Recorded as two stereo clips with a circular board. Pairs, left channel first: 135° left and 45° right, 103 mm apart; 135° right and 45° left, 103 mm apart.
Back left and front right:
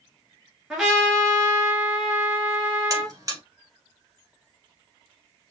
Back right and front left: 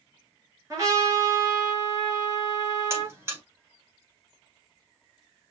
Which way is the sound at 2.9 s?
10° right.